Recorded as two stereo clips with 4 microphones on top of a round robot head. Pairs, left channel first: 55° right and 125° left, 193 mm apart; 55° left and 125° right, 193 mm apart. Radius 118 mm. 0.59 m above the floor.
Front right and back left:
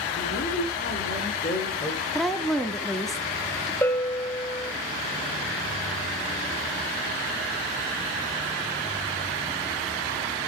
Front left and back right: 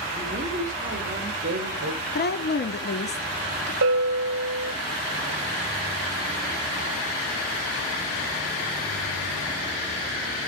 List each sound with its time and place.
0.2 s a woman speaking: 65° right, 2.5 m; by 2.0 s 105° right, 2.5 m
2.1 s a woman speaking: 35° left, 1.0 m
3.8 s a bell: 135° right, 0.8 m